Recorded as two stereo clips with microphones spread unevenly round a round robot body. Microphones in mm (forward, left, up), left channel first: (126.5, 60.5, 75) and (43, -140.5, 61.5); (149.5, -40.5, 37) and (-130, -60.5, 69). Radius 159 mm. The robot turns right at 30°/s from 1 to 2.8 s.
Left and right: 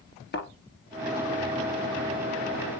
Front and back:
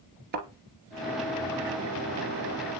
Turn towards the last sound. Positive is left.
turn(degrees=180)